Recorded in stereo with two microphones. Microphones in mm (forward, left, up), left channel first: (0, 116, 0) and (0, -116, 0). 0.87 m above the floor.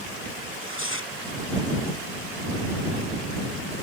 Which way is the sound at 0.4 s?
65° left (ahead or behind).